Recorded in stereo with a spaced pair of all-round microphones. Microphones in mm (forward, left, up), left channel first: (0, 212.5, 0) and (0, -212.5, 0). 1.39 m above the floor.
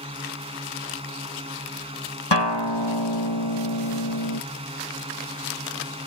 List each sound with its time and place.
0.0 s a drone: 15° right (ahead or behind)
2.3 s a guitar: 85° left